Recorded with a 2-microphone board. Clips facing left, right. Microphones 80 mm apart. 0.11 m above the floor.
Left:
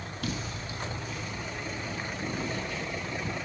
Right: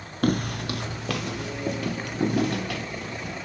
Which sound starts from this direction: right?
Footsteps, at 0.2 s.